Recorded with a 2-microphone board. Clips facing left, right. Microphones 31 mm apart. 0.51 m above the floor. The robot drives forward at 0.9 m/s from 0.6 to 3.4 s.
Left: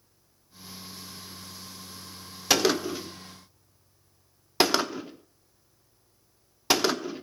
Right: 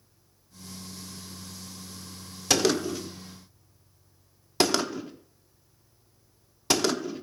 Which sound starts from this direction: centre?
A gunshot, at 2.5 s.